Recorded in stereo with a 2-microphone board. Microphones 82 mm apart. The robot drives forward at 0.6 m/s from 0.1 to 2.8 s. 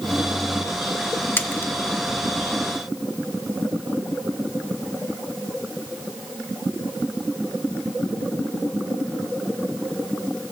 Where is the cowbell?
No cowbell in this recording.